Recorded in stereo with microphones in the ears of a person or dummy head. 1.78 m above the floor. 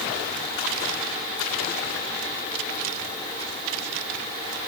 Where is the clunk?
No clunk in this recording.